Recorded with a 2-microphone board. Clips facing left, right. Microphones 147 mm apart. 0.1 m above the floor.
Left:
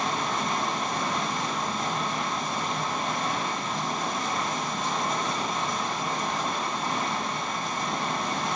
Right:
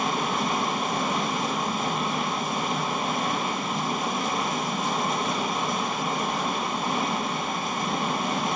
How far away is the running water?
About 1.9 m.